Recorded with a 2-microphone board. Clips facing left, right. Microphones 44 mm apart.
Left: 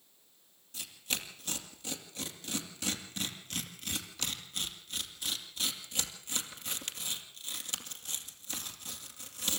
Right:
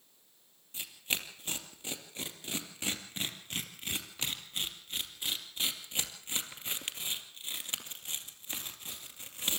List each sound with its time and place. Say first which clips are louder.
0.7 s tearing paper: right 2 dB; 25° right (ahead or behind), 2 m